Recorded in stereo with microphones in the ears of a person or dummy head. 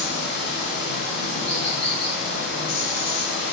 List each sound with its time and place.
0.0 s running water: 60° left (ahead or behind), 1.5 m